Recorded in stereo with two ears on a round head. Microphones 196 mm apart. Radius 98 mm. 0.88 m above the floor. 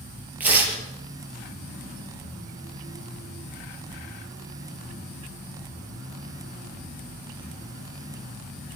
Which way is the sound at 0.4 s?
10° right (ahead or behind).